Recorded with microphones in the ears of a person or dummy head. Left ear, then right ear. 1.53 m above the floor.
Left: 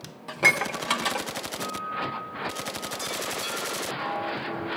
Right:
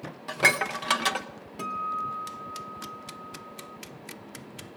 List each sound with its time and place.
0.3 s dishes clattering: 10° right (ahead or behind), 0.6 m
1.6 s a guitar: 10° right (ahead or behind), 1.0 m